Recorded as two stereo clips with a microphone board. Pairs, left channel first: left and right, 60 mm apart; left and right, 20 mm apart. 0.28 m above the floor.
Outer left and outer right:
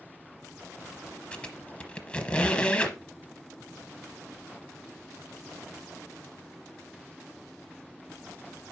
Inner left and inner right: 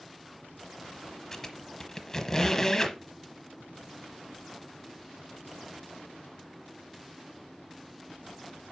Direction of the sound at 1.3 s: 20° left (ahead or behind).